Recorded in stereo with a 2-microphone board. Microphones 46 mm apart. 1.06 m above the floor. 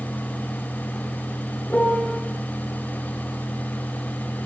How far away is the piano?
About 2 m.